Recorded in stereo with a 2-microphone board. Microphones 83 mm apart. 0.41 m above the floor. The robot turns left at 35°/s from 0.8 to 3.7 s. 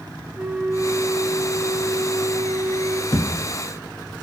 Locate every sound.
0.3 s a flute: 15° right (ahead or behind), 0.6 m; by 3.0 s 25° right (ahead or behind), 0.6 m
3.1 s a thud: 60° left (ahead or behind), 0.7 m; by 3.3 s 55° left (ahead or behind), 0.7 m